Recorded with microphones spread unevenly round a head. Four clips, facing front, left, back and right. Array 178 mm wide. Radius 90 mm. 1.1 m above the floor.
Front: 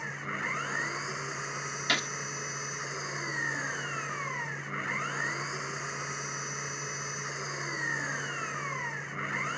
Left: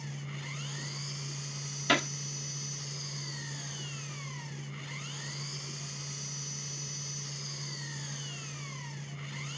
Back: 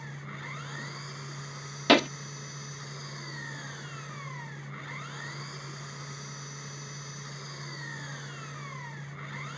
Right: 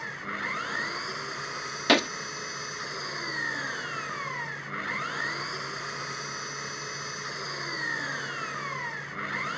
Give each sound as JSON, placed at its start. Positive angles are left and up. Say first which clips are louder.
{"t": 0.0, "sound": "an engine running", "louder": "right 8 dB, front 6 dB", "azimuth_deg": -45}
{"t": 1.9, "sound": "a gunshot", "louder": "right 6 dB, back 12 dB", "azimuth_deg": -145}